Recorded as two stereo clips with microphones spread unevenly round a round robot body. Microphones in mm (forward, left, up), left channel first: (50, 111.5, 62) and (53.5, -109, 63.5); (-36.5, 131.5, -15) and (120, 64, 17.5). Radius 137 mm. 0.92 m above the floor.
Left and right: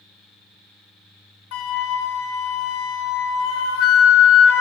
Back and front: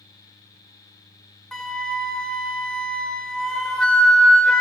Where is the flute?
70° left, 1.7 m.